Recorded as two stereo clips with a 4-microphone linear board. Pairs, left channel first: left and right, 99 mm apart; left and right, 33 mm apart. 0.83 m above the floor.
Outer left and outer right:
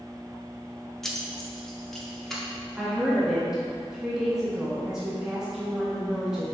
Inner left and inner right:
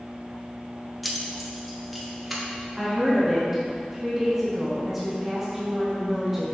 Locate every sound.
1.0 s keys jangling: 5° left (ahead or behind), 0.8 m
2.8 s a woman speaking: 5° right (ahead or behind), 1.5 m